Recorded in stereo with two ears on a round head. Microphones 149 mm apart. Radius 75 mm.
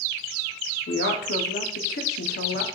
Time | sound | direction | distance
0.9 | a woman speaking | 65° left (ahead or behind) | 0.8 m